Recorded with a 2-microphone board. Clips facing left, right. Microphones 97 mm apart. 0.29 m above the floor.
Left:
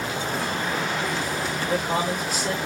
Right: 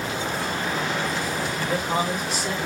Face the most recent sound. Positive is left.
turn(degrees=-10)  # may be behind; listen again after turning